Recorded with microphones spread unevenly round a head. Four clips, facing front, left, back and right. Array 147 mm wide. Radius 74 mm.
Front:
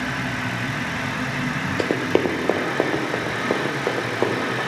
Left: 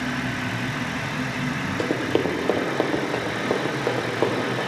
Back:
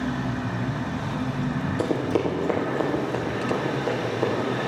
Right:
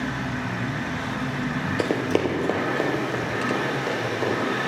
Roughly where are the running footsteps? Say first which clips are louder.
Even, front 4 dB; ahead.